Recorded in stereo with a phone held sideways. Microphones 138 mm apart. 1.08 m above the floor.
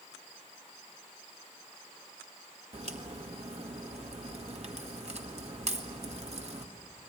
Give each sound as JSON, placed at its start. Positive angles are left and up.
{"t": 2.7, "sound": "a crack", "side_deg": -50, "distance_m": 1.5}